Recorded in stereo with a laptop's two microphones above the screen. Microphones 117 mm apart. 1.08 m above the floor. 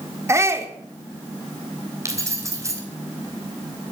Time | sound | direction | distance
0.3 | a shout | 25° right (ahead or behind) | 3.5 m
2.0 | keys jangling | 25° right (ahead or behind) | 3 m